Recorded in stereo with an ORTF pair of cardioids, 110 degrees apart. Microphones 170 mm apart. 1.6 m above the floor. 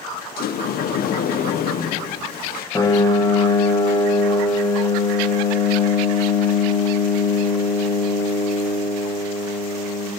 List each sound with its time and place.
0.4 s a sliding door: 60° left, 1.0 m
2.8 s a piano: 20° left, 2 m